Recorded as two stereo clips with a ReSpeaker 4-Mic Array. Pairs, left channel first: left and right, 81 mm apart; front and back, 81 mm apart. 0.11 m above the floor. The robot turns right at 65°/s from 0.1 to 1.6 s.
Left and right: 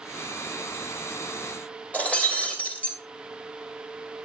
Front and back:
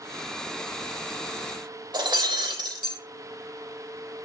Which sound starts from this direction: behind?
Breaking glass, at 1.9 s.